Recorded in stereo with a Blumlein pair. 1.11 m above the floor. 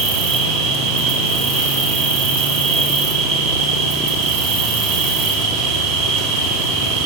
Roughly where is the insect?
Ahead right.